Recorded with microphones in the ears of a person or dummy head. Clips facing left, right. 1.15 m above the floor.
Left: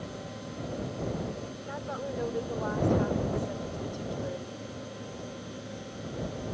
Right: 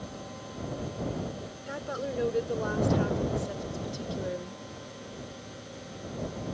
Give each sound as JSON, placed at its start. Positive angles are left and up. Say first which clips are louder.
{"t": 1.7, "sound": "a woman speaking", "louder": "right 3 dB", "side_deg": -30}